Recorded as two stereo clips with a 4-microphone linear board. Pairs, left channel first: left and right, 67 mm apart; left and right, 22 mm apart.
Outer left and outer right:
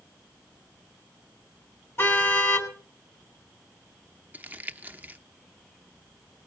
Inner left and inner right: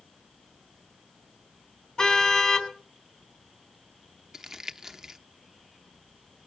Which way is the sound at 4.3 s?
25° right (ahead or behind).